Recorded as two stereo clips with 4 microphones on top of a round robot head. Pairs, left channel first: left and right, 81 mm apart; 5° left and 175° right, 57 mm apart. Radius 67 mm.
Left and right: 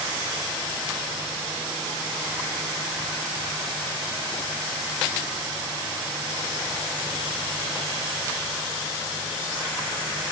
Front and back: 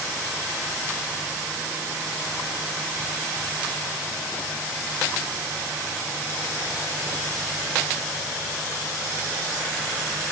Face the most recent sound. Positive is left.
No sound to turn to.